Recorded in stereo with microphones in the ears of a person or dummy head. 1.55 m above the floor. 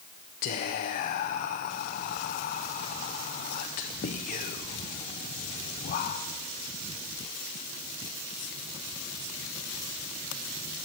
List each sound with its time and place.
0.4 s whispering: 45° left (ahead or behind), 0.6 m